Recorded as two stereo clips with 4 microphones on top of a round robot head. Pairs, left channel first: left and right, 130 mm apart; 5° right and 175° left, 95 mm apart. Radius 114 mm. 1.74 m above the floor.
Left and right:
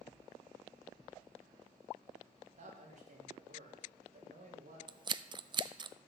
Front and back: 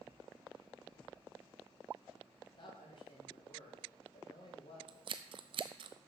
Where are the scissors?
150° right, 0.5 m.